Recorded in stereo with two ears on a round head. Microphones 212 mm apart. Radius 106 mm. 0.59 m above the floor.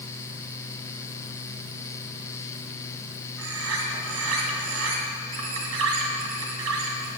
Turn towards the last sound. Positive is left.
turn(degrees=-65)  # may be behind; listen again after turning